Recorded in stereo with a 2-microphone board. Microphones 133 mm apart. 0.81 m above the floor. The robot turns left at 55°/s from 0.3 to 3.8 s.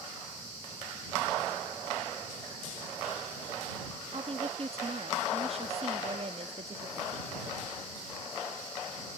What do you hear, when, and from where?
4.1 s a woman speaking: 50° right (ahead or behind)